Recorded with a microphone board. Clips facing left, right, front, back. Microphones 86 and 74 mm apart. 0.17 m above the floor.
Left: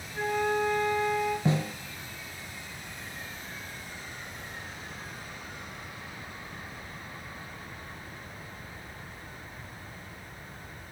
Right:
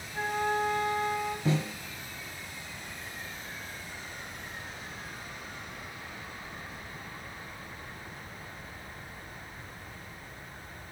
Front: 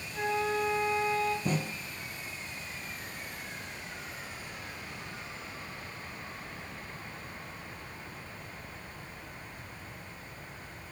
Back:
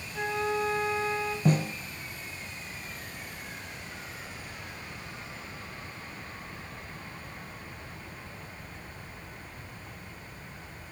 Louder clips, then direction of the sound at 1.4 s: Left 1 dB, back 6 dB; 155° left.